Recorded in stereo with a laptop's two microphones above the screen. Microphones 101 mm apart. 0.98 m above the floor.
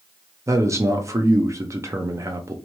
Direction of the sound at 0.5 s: 30° right (ahead or behind).